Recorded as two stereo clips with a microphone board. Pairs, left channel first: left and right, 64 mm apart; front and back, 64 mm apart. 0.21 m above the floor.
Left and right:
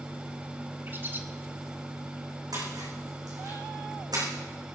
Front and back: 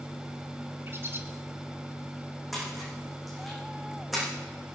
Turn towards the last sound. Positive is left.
turn(degrees=-90)